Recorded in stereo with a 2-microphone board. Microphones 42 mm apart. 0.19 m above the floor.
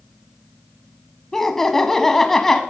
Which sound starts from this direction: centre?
Laughter, at 1.3 s.